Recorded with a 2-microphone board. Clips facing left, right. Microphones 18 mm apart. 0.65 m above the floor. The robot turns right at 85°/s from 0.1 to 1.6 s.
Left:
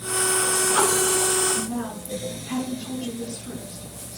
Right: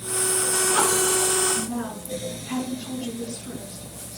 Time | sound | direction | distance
1.6 | a woman speaking | 75° right (ahead or behind) | 6 m